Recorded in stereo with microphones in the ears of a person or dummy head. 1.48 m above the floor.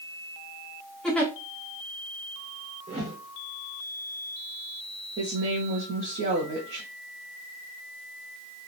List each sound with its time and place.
1.0 s a giggle: 5° left (ahead or behind), 0.5 m
2.9 s a whoosh: 35° right (ahead or behind), 0.9 m
5.2 s a woman speaking: 60° right (ahead or behind), 0.5 m